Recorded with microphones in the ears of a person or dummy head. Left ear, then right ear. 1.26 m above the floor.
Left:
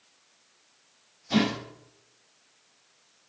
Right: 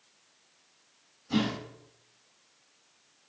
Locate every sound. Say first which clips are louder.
1.3 s a whoosh: left 4 dB; 35° left (ahead or behind), 4 m